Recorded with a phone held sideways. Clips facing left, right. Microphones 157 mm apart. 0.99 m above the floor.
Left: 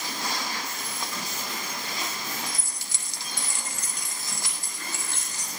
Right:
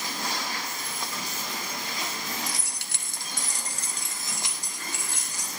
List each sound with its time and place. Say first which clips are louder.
2.5 s keys jangling: right 1 dB; 80° right, 0.8 m; by 5.5 s 10° right (ahead or behind), 2.5 m